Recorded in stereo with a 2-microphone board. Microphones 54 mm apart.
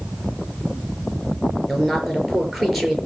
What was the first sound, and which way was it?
A woman speaking, centre (ahead or behind).